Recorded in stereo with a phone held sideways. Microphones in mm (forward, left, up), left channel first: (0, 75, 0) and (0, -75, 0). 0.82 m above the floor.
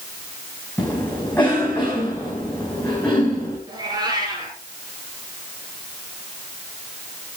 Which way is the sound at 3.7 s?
25° right (ahead or behind).